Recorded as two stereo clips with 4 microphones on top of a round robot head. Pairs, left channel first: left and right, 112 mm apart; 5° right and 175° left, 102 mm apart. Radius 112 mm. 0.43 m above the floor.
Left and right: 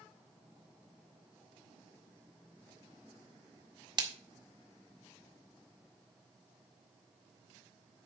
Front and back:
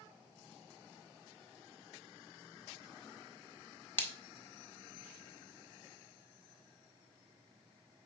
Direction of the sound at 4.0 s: 65° right.